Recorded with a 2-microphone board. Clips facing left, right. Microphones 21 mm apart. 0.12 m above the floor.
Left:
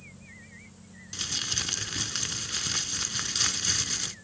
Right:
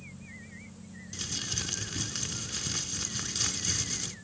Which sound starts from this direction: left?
Crumpling, at 1.1 s.